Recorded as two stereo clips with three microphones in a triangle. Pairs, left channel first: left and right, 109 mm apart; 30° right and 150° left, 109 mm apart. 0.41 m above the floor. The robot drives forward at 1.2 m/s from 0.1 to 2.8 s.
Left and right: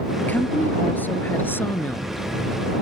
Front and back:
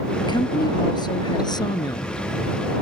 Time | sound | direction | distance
0.2 | a woman speaking | 15° left | ?